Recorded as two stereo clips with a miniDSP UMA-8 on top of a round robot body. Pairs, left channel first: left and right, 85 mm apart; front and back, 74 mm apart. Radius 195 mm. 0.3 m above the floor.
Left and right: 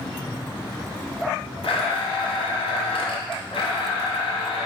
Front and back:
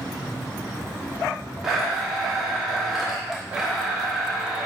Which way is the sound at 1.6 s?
95° left.